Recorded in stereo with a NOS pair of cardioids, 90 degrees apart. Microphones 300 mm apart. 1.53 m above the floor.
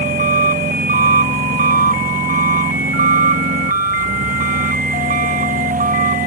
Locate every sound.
0.0 s an engine running: 25° right